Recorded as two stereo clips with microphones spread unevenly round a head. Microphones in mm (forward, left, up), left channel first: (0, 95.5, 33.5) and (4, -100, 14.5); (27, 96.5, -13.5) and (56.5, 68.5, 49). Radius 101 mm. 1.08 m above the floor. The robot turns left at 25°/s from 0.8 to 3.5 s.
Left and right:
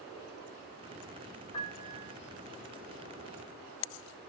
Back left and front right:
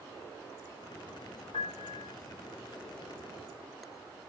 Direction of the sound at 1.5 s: 130° left.